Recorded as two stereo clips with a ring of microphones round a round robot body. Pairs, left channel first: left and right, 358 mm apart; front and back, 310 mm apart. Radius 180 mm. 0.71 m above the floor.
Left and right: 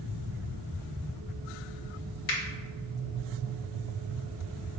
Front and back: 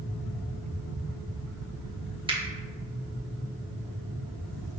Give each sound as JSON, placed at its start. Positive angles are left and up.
{"t": 2.3, "sound": "a finger snap", "azimuth_deg": 105, "distance_m": 0.9}